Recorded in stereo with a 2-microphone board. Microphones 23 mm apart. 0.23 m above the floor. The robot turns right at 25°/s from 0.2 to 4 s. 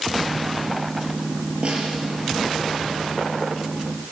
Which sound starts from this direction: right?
A snare drum, at 1.6 s.